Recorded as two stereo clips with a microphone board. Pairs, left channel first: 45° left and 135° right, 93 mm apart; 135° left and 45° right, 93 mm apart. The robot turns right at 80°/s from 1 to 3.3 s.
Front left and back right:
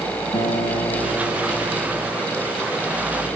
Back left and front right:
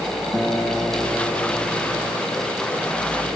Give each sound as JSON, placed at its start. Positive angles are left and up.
{"t": 0.3, "sound": "a guitar", "azimuth_deg": 50, "distance_m": 4.5}